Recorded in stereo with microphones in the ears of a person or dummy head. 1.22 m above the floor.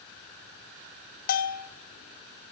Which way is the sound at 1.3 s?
50° left (ahead or behind).